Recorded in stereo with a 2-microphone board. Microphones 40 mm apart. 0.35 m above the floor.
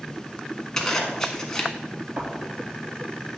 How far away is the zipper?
About 1.2 m.